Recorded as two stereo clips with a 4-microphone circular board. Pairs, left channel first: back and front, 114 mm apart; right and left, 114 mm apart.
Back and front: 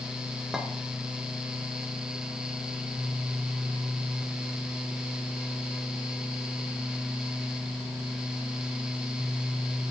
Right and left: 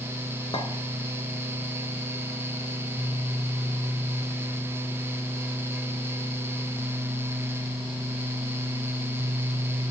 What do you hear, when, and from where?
0.5 s a clink: 85° right, 1.1 m